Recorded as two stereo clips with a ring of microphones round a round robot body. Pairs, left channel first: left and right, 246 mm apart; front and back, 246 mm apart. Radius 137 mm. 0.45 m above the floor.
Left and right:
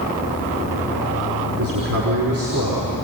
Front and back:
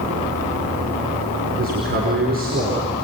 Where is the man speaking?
125° right, 5.5 m.